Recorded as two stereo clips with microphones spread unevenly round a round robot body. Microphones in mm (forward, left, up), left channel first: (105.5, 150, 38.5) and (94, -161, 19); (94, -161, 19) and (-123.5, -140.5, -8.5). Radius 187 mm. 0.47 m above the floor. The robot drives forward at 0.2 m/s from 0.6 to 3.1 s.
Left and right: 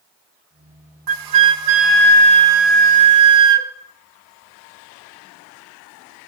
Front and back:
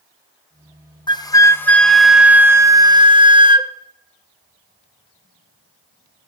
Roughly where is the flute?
Right.